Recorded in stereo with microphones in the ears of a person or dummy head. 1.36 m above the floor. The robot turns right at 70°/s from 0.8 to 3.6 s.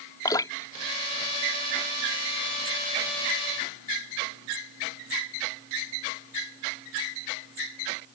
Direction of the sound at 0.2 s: 15° left (ahead or behind).